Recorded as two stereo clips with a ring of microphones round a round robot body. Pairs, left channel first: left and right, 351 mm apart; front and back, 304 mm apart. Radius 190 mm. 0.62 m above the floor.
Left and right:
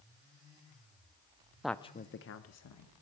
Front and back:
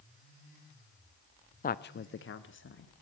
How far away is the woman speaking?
About 0.5 m.